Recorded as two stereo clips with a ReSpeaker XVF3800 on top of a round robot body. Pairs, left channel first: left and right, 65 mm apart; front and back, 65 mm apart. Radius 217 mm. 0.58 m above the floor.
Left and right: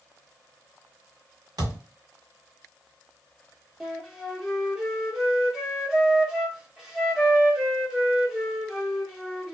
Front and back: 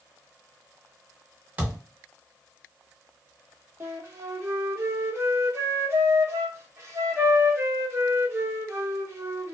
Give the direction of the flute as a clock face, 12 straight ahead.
6 o'clock.